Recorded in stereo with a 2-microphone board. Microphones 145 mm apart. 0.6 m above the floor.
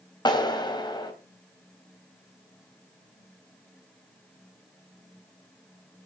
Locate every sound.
0.2 s a clap: 30° left (ahead or behind), 3 m